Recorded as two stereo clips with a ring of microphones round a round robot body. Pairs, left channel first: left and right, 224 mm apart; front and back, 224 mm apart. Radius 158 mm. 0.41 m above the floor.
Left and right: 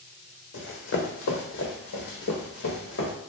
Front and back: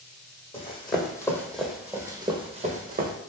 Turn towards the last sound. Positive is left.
turn(degrees=135)